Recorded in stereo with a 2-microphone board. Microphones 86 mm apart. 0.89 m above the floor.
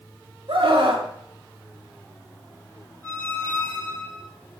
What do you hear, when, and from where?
0.5 s a scream: 75° right (ahead or behind), 1.7 m
3.0 s a squeak: 20° left (ahead or behind), 4 m